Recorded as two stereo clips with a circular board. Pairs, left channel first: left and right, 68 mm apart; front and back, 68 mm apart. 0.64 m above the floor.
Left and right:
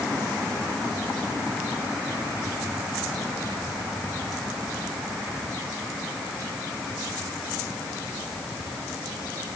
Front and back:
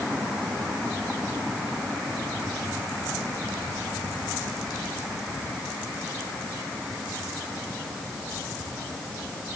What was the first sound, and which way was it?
Only background noise.